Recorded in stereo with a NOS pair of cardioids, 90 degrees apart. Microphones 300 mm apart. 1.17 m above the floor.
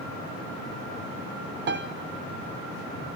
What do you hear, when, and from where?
1.7 s a piano: 35° right, 0.5 m